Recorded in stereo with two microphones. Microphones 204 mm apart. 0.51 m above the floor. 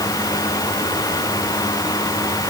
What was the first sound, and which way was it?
Only background noise.